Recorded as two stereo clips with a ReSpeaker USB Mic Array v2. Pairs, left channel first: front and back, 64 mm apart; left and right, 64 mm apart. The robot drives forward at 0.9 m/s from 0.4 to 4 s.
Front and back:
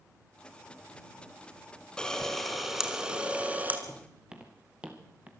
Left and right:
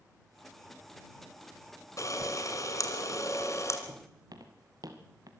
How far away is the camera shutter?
About 2.5 m.